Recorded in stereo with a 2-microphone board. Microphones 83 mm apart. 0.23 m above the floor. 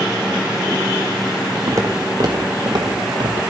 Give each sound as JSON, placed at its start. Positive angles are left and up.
{"t": 1.7, "sound": "footsteps", "side_deg": -40, "distance_m": 1.1}